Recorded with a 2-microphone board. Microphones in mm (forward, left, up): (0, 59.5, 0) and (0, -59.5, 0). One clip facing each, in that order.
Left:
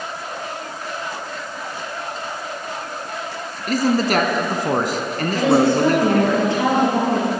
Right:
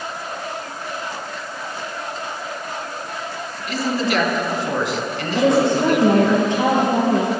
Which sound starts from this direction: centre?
A woman speaking, at 5.3 s.